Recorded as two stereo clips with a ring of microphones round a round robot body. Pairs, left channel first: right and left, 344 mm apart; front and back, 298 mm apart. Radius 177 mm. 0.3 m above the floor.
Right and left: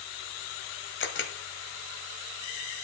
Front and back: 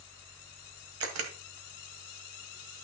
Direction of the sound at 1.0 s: 145° right.